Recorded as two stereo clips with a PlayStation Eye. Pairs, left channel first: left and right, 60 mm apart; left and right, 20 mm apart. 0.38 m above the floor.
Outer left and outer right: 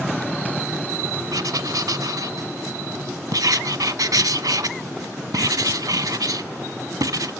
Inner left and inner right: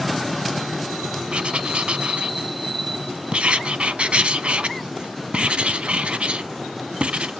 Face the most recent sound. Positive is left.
turn(degrees=-80)